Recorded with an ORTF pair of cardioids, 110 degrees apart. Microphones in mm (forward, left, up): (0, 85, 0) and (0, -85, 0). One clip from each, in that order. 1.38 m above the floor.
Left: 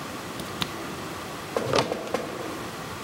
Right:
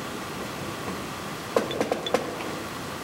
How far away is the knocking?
About 1.5 m.